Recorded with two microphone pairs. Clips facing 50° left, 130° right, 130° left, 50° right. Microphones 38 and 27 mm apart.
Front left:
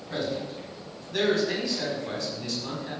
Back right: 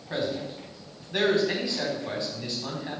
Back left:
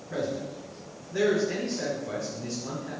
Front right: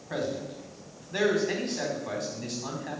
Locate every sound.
0.1 s a man speaking: 65° right, 4.5 m